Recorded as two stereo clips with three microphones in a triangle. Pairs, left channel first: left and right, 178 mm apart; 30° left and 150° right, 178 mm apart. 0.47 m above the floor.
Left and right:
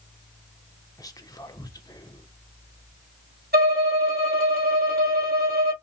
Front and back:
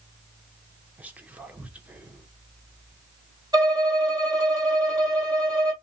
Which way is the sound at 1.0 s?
135° left.